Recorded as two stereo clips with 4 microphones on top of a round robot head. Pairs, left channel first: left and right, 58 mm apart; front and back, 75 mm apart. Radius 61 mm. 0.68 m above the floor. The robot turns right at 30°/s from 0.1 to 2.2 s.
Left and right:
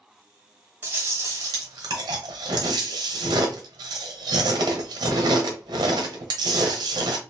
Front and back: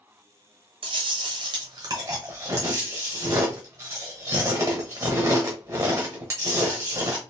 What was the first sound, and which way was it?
Chewing, 160° right.